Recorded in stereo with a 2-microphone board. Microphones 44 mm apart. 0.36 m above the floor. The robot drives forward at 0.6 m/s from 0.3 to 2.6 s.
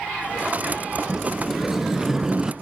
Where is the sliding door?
5° right (ahead or behind), 1.5 m; by 2.5 s 15° right (ahead or behind), 0.7 m.